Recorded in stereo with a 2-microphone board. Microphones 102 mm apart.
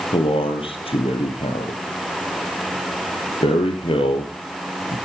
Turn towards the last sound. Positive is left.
turn(degrees=60)  # may be behind; listen again after turning